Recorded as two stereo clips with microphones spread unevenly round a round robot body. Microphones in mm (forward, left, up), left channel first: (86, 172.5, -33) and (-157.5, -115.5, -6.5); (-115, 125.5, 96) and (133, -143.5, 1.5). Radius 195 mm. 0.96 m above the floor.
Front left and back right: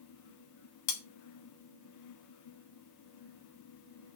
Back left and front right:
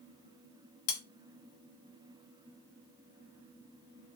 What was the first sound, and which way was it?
Cutlery clinking, 100° left.